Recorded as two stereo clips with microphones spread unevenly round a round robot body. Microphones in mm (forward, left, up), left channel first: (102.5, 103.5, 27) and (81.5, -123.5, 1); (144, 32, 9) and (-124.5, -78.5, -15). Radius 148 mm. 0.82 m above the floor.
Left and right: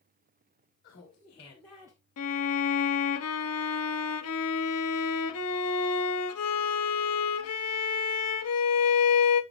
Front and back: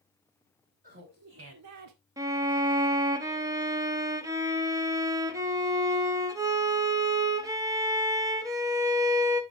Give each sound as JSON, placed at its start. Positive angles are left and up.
{"t": 0.8, "sound": "laughter", "azimuth_deg": 140, "distance_m": 1.5}
{"t": 2.2, "sound": "a violin", "azimuth_deg": 125, "distance_m": 0.6}